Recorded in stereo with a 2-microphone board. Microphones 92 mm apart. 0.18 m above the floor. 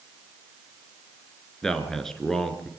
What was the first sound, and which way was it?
A man speaking, 5° left (ahead or behind).